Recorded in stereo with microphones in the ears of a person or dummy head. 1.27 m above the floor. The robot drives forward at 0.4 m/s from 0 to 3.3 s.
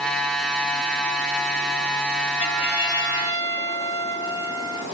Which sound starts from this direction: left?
A trumpet, at 2.4 s.